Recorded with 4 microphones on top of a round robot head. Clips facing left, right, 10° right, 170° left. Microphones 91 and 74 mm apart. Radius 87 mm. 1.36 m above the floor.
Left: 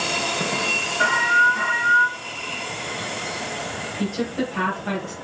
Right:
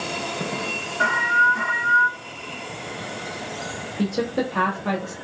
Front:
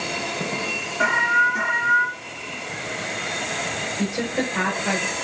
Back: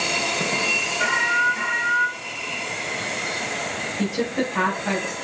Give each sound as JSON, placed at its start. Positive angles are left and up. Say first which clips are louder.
{"t": 1.0, "sound": "an alarm", "louder": "left 1 dB, front 3 dB", "azimuth_deg": -10, "distance_m": 0.6}
{"t": 4.0, "sound": "a woman speaking", "louder": "right 2 dB, back 1 dB", "azimuth_deg": -95, "distance_m": 1.8}